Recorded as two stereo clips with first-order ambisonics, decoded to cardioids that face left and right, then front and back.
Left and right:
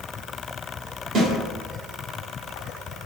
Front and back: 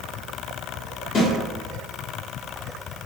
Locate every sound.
1.1 s a snare drum: 60° right, 1.2 m